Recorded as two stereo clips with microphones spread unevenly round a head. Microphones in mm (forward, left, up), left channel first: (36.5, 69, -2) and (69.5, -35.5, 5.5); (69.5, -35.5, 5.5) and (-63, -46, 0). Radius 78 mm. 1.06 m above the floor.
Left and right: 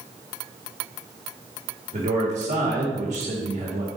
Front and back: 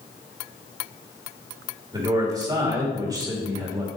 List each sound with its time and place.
1.9 s a man speaking: 110° right, 2.5 m